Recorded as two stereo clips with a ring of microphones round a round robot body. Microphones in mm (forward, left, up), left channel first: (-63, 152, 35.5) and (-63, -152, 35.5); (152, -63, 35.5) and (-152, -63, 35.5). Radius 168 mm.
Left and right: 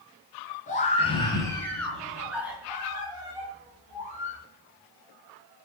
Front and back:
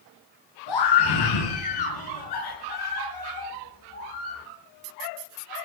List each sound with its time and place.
0.7 s a scream: 20° left, 4 m; by 4.4 s 20° right, 7 m